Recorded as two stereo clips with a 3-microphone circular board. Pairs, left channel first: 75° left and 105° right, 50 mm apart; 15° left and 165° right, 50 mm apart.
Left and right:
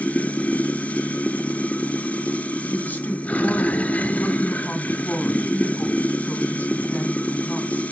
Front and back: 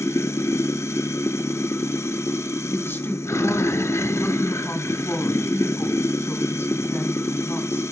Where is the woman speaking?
25° left, 2.5 m.